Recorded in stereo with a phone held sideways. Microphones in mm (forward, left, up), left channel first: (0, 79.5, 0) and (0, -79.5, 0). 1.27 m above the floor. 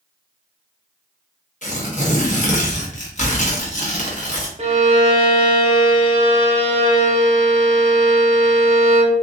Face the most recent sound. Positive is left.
turn(degrees=-45)  # may be behind; listen again after turning